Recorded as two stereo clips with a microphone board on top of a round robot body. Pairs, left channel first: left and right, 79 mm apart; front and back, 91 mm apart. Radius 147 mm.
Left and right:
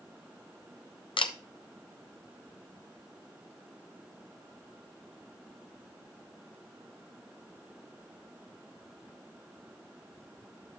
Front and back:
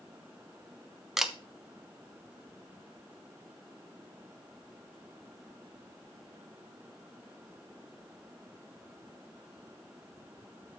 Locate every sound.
1.2 s a camera shutter: 95° left, 0.9 m